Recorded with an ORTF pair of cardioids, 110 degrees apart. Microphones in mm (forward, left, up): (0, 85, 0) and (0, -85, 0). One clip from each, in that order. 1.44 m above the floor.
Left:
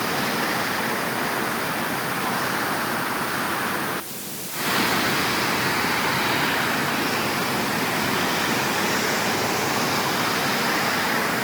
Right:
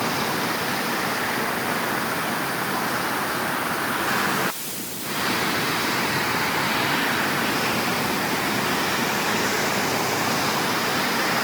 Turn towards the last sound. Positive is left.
No sound to turn to.